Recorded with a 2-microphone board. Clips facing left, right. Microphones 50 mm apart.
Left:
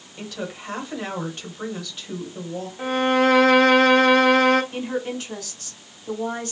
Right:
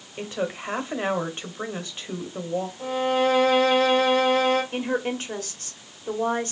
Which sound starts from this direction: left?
A violin, at 2.8 s.